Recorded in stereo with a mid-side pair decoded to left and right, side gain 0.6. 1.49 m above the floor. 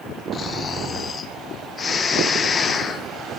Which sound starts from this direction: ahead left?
Snoring, at 0.3 s.